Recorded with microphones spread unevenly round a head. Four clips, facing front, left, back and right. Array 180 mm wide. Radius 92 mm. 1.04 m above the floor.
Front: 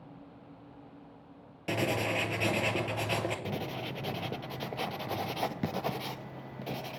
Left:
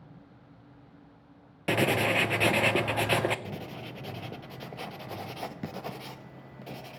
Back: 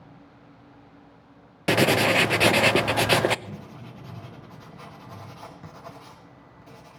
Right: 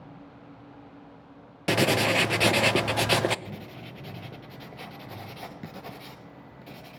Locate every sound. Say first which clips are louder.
1.7 s writing: right 2 dB, back 10 dB; 175° right, 0.6 m
3.5 s writing: left 2 dB, front 5 dB; 10° left, 0.5 m